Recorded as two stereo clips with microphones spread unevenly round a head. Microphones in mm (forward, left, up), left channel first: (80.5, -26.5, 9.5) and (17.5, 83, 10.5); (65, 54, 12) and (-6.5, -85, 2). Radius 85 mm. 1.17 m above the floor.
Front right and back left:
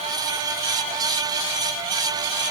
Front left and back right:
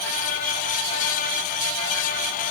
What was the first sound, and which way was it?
Only background noise.